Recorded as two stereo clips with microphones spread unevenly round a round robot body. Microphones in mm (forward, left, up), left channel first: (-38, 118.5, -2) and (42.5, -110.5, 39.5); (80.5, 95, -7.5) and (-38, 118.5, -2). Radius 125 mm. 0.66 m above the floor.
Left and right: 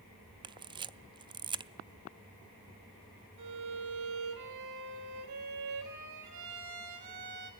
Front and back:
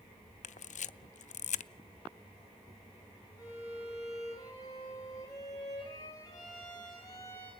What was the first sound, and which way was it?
A camera shutter, 5° left.